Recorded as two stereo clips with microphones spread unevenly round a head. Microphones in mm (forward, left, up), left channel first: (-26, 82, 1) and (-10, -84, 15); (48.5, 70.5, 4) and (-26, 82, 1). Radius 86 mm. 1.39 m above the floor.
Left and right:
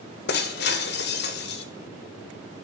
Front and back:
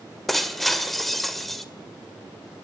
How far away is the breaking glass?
About 1.6 m.